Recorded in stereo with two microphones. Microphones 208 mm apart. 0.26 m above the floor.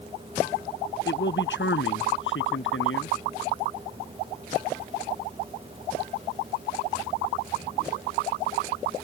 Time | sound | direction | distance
1.1 | a man speaking | 60° left (ahead or behind) | ?